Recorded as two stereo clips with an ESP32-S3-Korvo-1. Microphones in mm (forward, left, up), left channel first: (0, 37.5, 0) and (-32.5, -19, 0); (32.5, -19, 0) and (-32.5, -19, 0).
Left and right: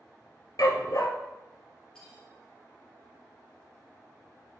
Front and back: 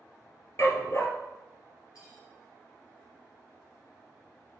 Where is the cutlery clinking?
15° right, 2 m.